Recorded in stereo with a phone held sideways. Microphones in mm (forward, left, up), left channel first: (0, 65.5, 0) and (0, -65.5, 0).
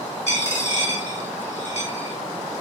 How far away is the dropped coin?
About 2.5 m.